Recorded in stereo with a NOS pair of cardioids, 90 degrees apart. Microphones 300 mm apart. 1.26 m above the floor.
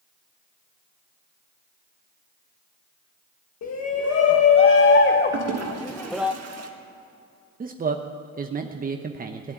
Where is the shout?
60° left, 1.7 m; by 6.3 s 10° right, 0.8 m.